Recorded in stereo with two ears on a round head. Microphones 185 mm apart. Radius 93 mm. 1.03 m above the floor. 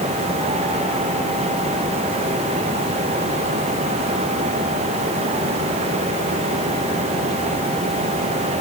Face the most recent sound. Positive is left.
No sound to turn to.